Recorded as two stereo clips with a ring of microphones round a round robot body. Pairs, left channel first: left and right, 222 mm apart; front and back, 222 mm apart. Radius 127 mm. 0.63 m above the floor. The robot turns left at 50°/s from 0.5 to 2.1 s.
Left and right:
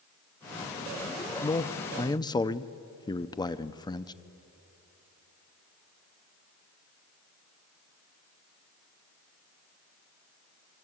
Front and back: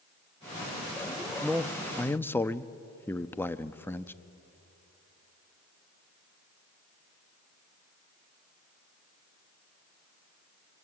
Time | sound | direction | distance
1.4 | a man speaking | 95° left | 0.8 m